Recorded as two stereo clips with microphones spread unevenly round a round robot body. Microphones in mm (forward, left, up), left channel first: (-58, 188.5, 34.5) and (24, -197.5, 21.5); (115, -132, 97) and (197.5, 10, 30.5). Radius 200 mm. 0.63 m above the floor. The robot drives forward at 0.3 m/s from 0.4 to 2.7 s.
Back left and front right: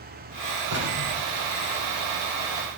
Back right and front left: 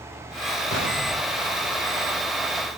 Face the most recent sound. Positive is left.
turn(degrees=-145)